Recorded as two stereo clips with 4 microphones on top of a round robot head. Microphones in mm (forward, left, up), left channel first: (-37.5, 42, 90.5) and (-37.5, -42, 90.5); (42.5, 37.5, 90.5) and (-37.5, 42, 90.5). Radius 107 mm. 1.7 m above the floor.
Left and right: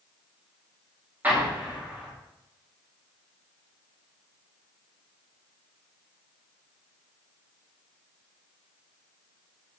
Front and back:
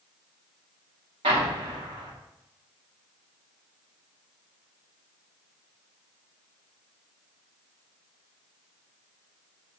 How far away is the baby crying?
I don't hear a baby crying.